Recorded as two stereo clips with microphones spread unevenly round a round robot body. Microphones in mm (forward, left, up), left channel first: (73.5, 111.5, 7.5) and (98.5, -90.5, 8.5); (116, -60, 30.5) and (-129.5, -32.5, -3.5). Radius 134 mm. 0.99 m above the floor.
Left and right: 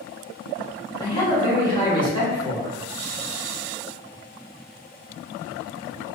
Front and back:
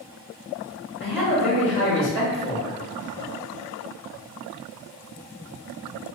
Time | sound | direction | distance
1.0 | a man speaking | 35° left | 1.1 m